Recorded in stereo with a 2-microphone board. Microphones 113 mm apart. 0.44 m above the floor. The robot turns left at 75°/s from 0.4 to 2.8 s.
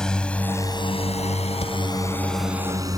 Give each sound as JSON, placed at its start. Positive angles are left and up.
{"t": 0.0, "sound": "a drone", "side_deg": 5}
{"t": 1.6, "sound": "a thud", "side_deg": 70}